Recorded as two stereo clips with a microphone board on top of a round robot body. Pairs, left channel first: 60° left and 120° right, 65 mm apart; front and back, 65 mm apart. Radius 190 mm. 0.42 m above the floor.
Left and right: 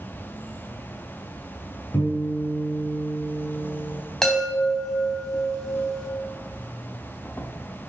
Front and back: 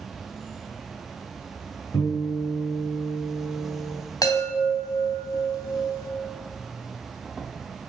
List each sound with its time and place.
0.0 s an insect: 95° left, 1.0 m
1.9 s a guitar: 5° left, 5 m
4.2 s a chime: 20° right, 3 m